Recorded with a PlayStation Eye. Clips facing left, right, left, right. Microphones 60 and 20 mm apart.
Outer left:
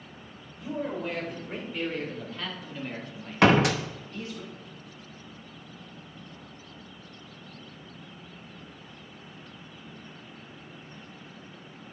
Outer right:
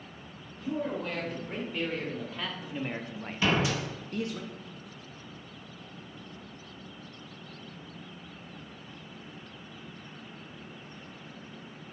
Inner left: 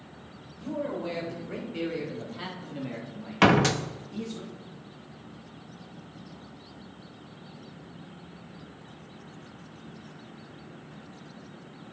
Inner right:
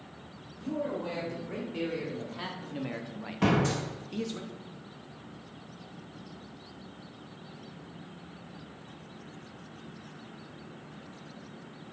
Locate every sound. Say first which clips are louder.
0.6 s a man speaking: even, inner left 1 dB; 10° left (ahead or behind), 4 m; by 4.4 s 60° right (ahead or behind), 1.3 m
3.4 s a door slam: outer left 7 dB, inner left 6 dB; 70° left (ahead or behind), 0.8 m